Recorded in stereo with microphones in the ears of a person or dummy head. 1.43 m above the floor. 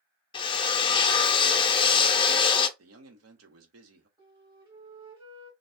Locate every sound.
0.3 s a drill: 25° left (ahead or behind), 0.6 m
2.8 s a man speaking: 70° right (ahead or behind), 1.1 m
4.2 s a flute: 20° right (ahead or behind), 2 m